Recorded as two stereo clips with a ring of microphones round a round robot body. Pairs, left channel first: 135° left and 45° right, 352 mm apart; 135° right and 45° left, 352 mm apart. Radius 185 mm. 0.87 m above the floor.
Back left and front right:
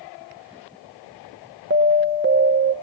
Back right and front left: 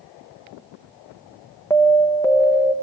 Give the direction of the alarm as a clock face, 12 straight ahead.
2 o'clock.